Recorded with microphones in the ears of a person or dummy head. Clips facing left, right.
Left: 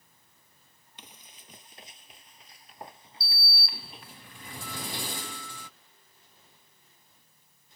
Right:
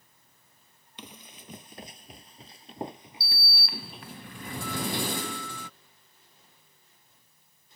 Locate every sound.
1.0 s running footsteps: 50° right (ahead or behind); by 4.0 s centre (ahead or behind)
3.2 s a sliding door: 40° right (ahead or behind)